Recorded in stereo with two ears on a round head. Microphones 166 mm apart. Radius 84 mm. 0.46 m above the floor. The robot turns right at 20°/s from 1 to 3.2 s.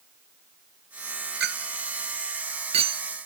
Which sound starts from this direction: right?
A clink, at 1.4 s.